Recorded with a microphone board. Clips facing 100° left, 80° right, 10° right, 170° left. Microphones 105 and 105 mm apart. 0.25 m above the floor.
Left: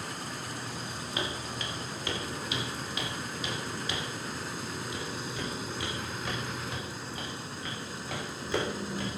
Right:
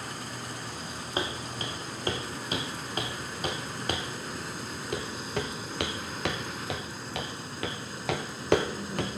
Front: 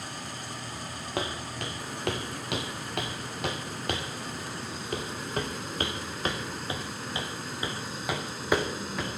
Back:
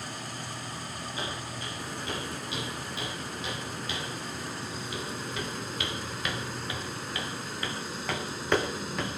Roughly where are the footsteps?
Ahead right.